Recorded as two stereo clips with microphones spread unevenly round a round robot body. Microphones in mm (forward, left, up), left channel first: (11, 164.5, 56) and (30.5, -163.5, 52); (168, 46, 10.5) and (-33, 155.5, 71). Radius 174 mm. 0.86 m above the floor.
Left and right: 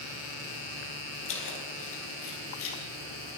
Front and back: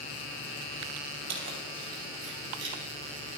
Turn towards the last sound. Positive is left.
turn(degrees=145)